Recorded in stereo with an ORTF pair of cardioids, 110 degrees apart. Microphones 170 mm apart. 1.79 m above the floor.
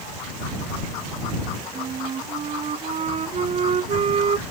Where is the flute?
40° right.